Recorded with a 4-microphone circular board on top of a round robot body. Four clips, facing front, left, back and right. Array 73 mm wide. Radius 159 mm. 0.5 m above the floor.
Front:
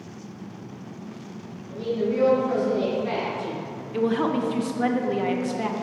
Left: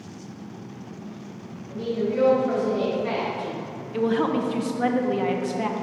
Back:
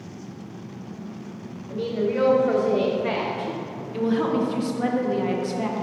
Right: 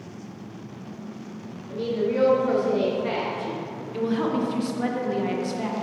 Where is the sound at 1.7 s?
145° right, 1.9 m; by 3.6 s straight behind, 1.9 m.